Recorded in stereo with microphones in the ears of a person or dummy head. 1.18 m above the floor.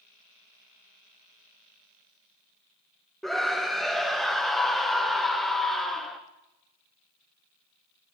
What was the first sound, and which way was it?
A scream, centre (ahead or behind).